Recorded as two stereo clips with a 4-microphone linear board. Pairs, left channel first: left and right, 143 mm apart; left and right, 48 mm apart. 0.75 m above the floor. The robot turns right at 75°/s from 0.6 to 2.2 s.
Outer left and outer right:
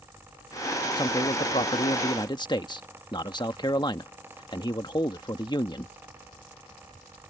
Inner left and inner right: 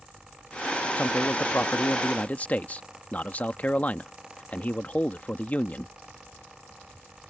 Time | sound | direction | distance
1.0 | a man speaking | 40° left | ?